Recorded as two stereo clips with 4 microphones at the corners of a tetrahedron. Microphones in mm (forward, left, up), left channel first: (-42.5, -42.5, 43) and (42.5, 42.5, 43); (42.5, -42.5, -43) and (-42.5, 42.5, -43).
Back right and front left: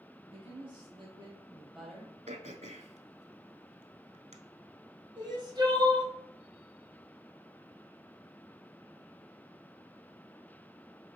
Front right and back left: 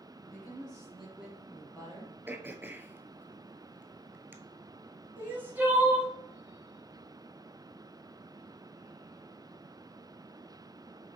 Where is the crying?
70° left, 1.2 m.